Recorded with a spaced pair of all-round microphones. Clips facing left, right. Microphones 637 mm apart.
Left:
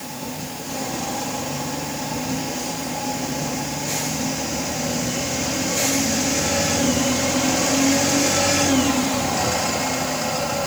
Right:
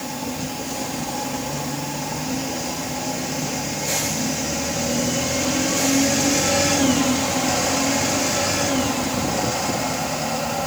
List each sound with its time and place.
Only background noise.